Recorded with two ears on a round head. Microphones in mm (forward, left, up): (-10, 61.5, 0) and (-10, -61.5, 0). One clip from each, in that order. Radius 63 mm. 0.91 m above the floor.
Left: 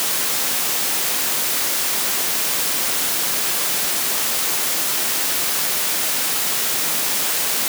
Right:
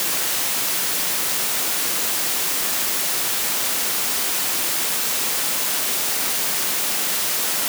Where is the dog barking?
No dog barking in this recording.